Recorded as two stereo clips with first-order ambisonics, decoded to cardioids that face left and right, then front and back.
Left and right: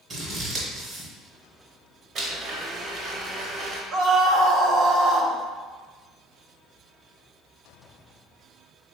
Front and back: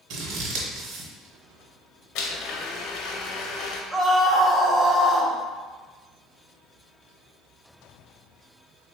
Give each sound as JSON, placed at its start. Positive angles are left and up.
{"t": 0.1, "sound": "scissors", "azimuth_deg": -150, "distance_m": 0.9}
{"t": 2.1, "sound": "a blender", "azimuth_deg": -30, "distance_m": 0.6}
{"t": 3.9, "sound": "a scream", "azimuth_deg": -100, "distance_m": 0.7}